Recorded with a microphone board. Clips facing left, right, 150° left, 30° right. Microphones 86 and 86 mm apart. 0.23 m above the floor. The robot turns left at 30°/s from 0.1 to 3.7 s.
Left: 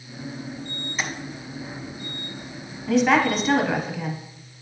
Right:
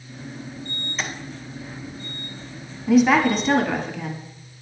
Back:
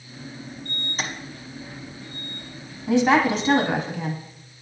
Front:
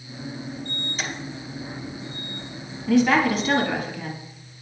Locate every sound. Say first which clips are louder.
1.0 s tapping: even, back 2 dB; 175° left, 0.9 m; by 1.1 s 170° left, 0.9 m
2.9 s a woman speaking: right 3 dB, even; 170° right, 1.1 m; by 4.2 s 165° left, 1.1 m